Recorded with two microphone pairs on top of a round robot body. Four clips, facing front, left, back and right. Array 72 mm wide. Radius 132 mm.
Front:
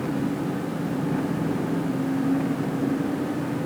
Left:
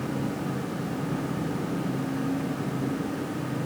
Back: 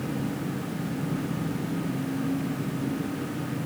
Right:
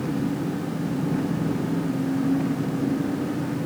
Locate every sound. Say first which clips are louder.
0.0 s an engine running: right 4 dB, front 5 dB; 15° right